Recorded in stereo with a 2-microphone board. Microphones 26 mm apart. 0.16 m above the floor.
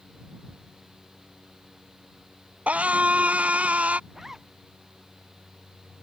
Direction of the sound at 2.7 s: 70° right (ahead or behind).